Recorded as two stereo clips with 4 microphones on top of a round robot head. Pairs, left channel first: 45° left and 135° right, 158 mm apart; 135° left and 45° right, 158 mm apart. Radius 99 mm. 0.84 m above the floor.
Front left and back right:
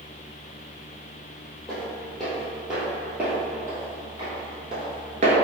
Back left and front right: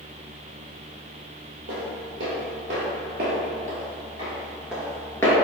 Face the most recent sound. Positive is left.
turn(degrees=-165)